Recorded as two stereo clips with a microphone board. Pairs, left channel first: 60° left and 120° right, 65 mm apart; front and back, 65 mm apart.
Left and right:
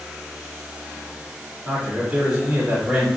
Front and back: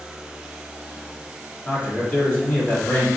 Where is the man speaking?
45° right, 1.6 m.